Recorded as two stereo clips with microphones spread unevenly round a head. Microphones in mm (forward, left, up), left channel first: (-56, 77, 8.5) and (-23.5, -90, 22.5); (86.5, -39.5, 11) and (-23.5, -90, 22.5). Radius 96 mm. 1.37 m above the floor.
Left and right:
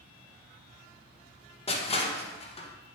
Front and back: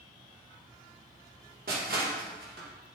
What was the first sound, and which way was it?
Crushing, 160° left.